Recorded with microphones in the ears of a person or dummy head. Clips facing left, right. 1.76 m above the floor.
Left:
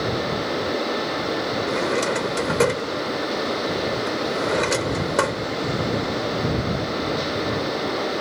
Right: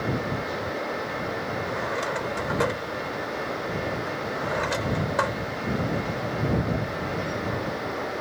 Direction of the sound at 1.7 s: 55° left (ahead or behind).